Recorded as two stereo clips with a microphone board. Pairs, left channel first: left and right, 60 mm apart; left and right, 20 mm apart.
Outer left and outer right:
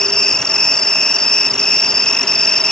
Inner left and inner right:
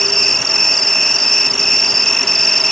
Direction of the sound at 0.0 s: 10° left (ahead or behind).